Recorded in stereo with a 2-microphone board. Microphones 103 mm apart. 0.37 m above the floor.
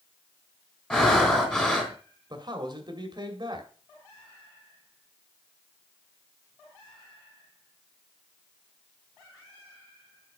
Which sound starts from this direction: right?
A man speaking, at 2.3 s.